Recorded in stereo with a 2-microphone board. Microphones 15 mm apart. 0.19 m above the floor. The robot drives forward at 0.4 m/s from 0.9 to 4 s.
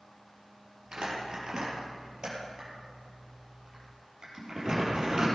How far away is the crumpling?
About 4.5 m.